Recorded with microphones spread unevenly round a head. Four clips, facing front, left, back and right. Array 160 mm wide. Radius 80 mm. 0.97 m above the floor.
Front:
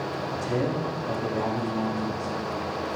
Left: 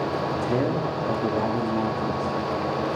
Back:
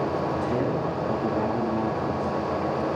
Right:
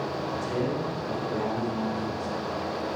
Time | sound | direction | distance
0.3 | a man speaking | 95° left | 1.8 m